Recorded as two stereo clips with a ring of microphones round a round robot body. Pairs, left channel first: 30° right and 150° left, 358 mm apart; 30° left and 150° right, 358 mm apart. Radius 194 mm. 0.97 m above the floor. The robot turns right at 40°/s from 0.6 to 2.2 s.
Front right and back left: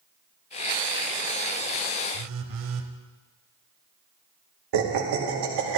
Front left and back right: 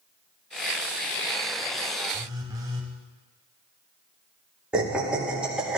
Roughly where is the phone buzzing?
Behind left.